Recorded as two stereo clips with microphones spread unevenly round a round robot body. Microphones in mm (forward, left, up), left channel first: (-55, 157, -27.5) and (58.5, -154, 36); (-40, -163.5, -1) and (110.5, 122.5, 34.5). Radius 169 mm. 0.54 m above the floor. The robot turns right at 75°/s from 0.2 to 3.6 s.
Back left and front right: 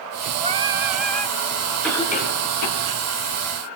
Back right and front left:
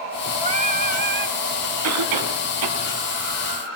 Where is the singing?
Straight ahead, 1.1 m; by 1.4 s 70° left, 1.1 m.